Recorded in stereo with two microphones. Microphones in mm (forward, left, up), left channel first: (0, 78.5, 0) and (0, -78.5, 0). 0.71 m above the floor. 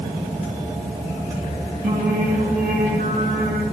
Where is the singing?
70° right (ahead or behind), 3 m.